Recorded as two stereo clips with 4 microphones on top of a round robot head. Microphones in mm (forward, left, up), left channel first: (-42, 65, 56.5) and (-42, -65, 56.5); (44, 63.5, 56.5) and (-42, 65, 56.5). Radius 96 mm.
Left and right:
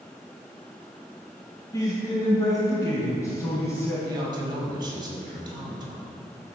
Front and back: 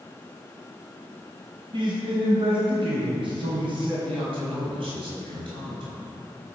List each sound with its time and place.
1.7 s a man speaking: 155° left, 3 m; by 4.0 s 165° left, 4.5 m
4.0 s a man speaking: 145° right, 4.5 m